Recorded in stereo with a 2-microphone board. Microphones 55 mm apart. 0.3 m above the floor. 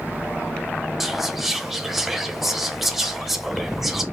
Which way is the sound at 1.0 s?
5° right (ahead or behind).